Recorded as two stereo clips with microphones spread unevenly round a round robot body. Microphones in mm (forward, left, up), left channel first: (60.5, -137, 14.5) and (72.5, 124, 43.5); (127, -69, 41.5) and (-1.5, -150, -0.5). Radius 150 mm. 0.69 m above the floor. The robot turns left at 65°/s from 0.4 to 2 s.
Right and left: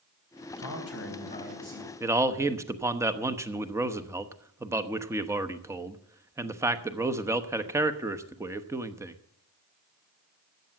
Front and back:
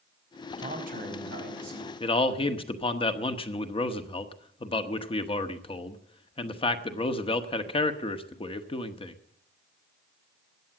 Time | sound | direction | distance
0.6 | a man speaking | 110° right | 4.5 m
2.0 | a man speaking | 10° left | 1.0 m